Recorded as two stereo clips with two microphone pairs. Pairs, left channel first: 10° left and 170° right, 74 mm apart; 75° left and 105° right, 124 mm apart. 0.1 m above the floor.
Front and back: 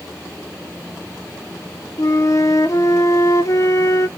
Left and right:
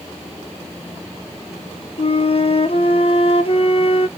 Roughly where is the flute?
Ahead left.